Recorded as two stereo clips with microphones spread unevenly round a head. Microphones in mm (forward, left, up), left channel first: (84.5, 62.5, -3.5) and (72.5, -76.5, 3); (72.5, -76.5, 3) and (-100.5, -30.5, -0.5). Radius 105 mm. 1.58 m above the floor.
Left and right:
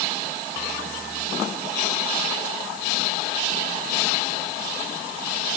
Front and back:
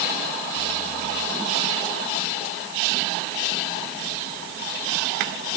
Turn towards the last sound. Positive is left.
No sound to turn to.